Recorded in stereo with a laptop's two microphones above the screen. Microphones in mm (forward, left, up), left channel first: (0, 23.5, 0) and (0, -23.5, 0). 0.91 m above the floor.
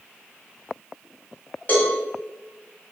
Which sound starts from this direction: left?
A cowbell, at 1.7 s.